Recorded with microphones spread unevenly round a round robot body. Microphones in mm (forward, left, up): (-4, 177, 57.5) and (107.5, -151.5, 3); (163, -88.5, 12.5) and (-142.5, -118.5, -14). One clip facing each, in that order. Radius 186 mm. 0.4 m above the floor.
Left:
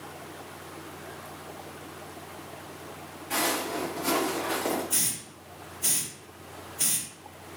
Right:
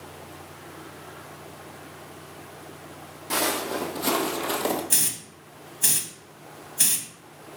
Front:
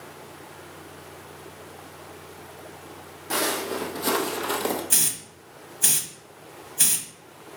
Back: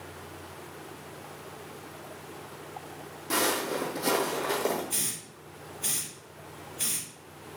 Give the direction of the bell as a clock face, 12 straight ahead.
I don't hear a bell.